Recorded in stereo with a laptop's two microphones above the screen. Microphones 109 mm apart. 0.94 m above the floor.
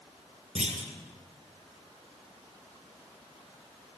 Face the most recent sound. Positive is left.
turn(degrees=-75)  # may be behind; listen again after turning